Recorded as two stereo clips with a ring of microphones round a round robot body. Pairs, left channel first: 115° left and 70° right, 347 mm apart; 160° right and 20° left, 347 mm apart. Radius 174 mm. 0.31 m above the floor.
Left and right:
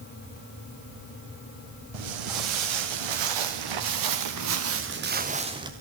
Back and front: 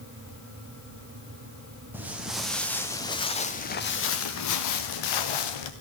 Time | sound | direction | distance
1.9 | footsteps | 60° right | 3.5 m